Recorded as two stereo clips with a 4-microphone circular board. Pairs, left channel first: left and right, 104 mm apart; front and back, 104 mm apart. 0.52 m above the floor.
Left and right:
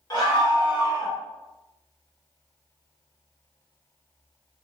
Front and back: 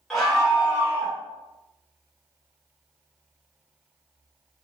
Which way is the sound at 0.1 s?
85° left.